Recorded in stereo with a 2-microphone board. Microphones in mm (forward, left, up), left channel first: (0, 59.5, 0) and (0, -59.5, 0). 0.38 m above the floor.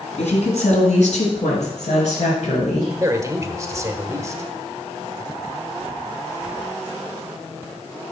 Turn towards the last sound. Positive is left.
turn(degrees=-25)  # may be behind; listen again after turning